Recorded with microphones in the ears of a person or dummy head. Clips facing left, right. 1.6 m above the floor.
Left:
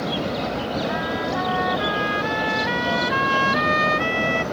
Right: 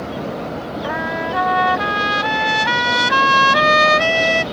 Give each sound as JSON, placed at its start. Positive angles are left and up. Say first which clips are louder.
{"t": 0.8, "sound": "a trumpet", "louder": "right 1 dB", "side_deg": -75}